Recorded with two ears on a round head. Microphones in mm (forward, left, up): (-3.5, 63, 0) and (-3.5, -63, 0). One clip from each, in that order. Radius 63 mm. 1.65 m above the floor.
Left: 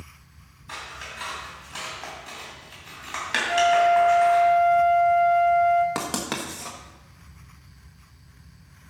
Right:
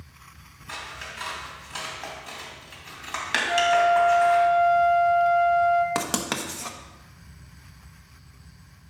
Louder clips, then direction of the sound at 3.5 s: Left 1 dB; centre (ahead or behind).